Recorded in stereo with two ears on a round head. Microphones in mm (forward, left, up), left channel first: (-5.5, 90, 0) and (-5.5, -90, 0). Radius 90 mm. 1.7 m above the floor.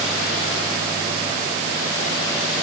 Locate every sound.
Only background noise.